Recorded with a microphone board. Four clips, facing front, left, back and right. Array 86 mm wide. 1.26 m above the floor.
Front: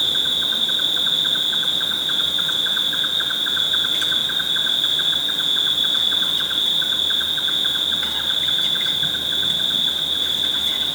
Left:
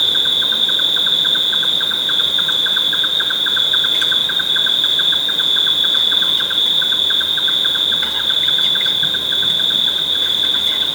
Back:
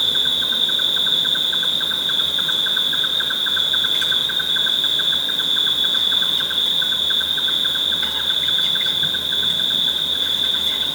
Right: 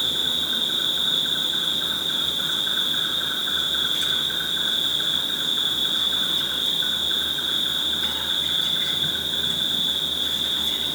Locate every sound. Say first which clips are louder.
0.0 s an insect: left 7 dB, back 1 dB; 85° left, 0.9 m